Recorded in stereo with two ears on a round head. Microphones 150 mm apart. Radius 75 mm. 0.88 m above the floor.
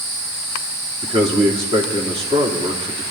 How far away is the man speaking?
About 2.5 m.